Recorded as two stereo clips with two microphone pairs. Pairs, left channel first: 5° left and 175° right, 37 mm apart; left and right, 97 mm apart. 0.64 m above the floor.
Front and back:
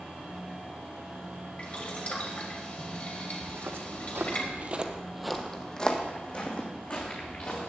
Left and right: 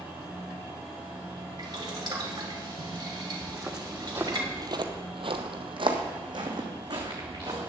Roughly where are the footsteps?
Behind.